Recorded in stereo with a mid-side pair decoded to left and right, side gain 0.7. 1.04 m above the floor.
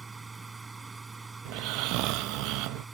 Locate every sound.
0.0 s a machine running: 15° right
1.4 s snoring: 65° right